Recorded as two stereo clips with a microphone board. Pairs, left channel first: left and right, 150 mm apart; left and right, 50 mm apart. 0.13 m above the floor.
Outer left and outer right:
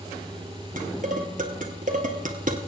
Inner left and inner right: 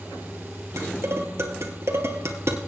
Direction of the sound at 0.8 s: 60° right (ahead or behind).